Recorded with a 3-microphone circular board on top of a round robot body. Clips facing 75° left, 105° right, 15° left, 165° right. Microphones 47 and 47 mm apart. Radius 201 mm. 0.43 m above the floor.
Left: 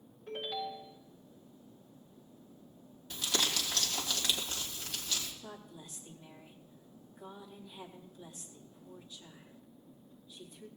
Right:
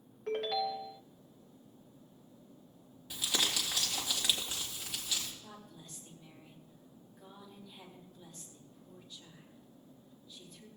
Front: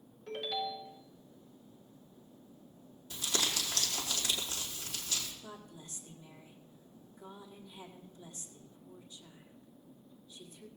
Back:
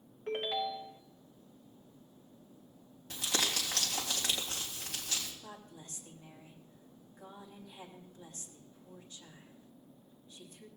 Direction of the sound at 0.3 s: 115° right.